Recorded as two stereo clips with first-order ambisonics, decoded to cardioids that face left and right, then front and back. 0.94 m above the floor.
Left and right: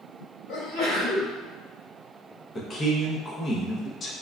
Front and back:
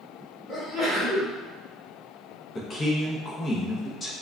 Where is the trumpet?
No trumpet in this recording.